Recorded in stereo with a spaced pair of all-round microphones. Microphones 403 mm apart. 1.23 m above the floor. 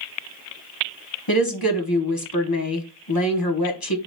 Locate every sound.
1.3 s a woman speaking: 60° left (ahead or behind), 1.2 m